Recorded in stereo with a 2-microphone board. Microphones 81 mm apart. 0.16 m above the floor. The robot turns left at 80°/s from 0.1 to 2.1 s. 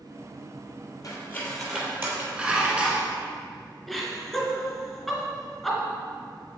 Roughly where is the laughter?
Centre.